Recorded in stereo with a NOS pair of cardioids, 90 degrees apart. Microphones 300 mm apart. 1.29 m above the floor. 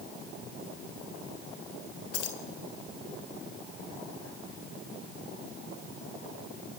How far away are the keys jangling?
About 3 m.